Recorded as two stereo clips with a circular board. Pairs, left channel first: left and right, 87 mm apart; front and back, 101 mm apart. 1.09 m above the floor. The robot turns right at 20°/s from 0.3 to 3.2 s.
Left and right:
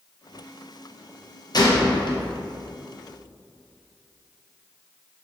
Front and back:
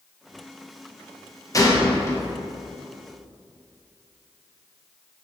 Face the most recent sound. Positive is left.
turn(degrees=90)